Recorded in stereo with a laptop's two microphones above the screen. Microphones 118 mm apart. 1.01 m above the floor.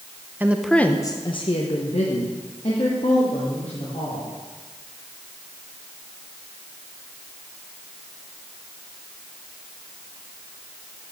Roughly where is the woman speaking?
Centre.